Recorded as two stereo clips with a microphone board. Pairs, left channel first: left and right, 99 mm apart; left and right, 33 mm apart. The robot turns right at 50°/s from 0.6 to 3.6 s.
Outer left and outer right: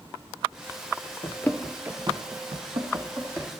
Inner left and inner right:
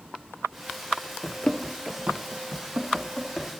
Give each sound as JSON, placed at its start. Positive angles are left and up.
{"t": 1.2, "sound": "running footsteps", "side_deg": 40, "distance_m": 1.0}